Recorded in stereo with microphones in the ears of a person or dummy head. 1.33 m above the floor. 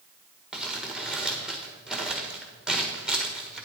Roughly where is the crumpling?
Centre.